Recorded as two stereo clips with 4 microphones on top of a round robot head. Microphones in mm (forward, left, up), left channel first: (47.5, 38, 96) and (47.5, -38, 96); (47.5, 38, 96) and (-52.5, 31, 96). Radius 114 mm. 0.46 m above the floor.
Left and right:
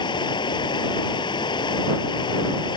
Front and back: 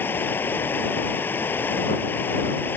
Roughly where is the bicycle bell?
No bicycle bell in this recording.